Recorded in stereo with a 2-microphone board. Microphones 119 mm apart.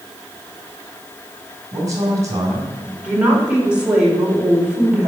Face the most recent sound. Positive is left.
turn(degrees=-10)  # may be behind; listen again after turning